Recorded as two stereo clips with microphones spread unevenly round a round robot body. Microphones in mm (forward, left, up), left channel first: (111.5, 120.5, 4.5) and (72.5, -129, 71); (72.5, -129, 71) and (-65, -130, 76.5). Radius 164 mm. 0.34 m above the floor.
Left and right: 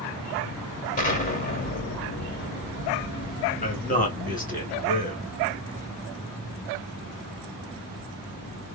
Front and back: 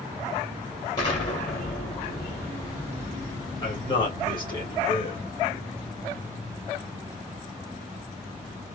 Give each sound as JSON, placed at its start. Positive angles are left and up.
{"t": 1.0, "sound": "an explosion", "azimuth_deg": 50, "distance_m": 1.8}
{"t": 3.6, "sound": "a man speaking", "azimuth_deg": 50, "distance_m": 2.5}